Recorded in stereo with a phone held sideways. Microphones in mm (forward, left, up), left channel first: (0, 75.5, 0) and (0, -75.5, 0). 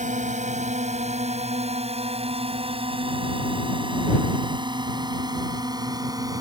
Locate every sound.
0.0 s a drone: 55° right (ahead or behind); by 6.4 s 25° right (ahead or behind)